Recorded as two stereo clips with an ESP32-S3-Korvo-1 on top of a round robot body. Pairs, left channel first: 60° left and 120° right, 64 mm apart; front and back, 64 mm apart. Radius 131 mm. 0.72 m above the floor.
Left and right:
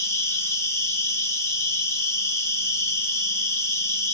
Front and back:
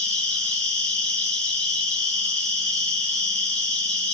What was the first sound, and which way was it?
An insect, 70° left.